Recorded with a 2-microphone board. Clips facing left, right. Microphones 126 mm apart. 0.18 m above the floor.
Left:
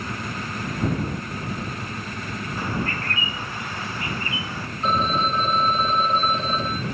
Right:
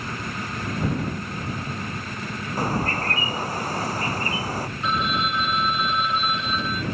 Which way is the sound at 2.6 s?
40° right (ahead or behind).